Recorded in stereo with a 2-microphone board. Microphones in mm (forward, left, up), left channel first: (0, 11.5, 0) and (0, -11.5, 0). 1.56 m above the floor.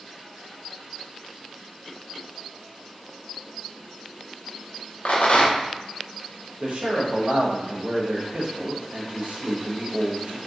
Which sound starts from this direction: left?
A rattle, at 5.0 s.